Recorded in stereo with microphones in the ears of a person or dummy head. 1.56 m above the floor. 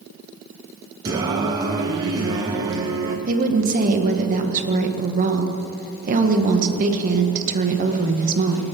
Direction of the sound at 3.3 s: 45° right (ahead or behind).